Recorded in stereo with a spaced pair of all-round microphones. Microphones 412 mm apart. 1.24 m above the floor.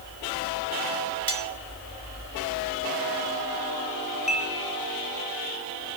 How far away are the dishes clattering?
About 7 m.